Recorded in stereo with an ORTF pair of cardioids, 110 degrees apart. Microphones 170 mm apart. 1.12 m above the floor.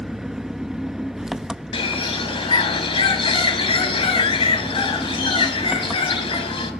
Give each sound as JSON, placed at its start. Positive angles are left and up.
{"t": 0.0, "sound": "an engine running", "azimuth_deg": -5, "distance_m": 0.8}
{"t": 1.7, "sound": "a bird", "azimuth_deg": 30, "distance_m": 4.5}